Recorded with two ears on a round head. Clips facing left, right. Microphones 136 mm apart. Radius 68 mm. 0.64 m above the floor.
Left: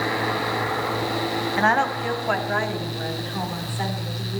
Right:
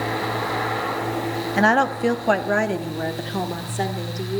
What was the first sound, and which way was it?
A woman speaking, 35° right (ahead or behind).